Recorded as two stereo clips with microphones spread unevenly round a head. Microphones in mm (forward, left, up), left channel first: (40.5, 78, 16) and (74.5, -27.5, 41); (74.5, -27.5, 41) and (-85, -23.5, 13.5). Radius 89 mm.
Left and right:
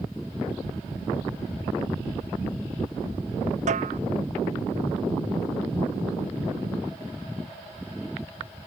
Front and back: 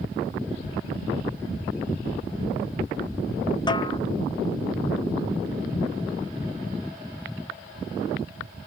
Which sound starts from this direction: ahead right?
A snare drum, at 3.7 s.